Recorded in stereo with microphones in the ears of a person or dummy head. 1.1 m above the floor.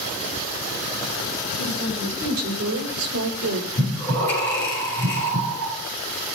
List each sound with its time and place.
1.6 s a woman speaking: 75° right (ahead or behind), 3.5 m
3.8 s breathing: 15° left (ahead or behind), 6 m